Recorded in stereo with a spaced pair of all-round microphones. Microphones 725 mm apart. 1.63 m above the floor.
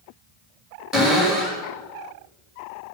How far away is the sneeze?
No sneeze in this recording.